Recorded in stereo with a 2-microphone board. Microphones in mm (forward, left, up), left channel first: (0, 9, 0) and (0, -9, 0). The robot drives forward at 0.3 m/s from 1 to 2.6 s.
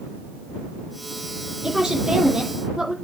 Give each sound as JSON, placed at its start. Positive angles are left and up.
{"t": 1.6, "sound": "a woman speaking", "side_deg": -40, "distance_m": 4.0}